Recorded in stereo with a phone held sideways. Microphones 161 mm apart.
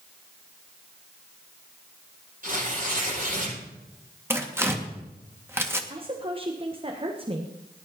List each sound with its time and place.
2.4 s tearing paper: 60° right (ahead or behind), 9 m
4.3 s tearing paper: 15° right (ahead or behind), 1.7 m
5.9 s a woman speaking: 35° right (ahead or behind), 1.3 m